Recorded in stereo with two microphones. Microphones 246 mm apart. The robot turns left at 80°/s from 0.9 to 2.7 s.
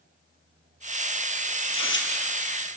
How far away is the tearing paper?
About 2.5 m.